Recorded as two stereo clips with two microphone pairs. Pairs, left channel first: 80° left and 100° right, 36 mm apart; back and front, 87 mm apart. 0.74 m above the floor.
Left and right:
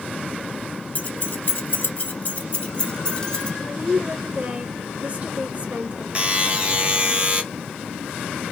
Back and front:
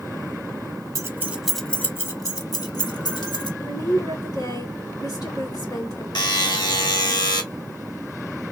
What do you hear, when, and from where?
0.9 s keys jangling: 50° left, 0.9 m; by 3.5 s 150° left, 2 m
3.6 s a woman speaking: 140° right, 2.5 m
6.2 s a buzzer: 150° right, 1.3 m